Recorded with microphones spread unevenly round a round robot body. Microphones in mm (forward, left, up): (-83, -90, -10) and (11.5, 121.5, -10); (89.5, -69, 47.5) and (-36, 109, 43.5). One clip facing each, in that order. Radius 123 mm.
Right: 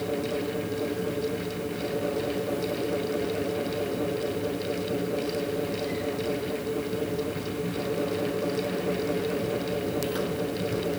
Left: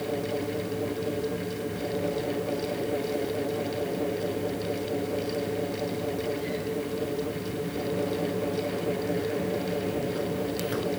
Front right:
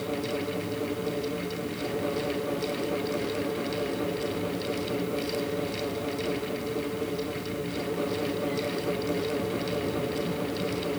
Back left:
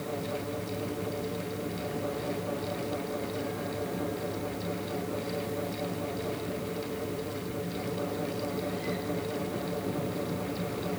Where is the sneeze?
I don't hear a sneeze.